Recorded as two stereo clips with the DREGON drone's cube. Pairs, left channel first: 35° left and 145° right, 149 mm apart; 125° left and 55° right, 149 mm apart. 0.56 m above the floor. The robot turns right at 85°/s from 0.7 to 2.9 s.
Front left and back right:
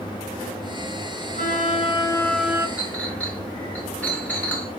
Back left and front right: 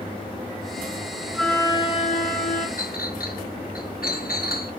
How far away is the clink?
About 4 m.